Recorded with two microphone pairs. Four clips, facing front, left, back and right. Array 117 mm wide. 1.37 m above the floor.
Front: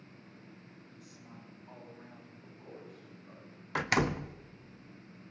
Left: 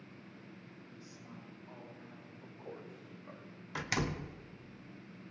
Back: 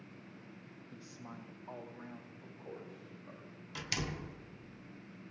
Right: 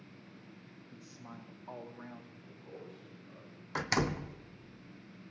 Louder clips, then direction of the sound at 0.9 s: Right 4 dB, back 6 dB; 155° right.